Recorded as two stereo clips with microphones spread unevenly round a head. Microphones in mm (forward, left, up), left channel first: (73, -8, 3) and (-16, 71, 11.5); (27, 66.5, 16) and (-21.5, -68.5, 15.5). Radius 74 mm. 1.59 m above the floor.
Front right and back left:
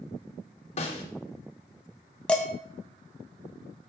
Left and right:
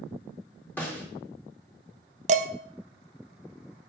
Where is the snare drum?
10° right, 2.5 m.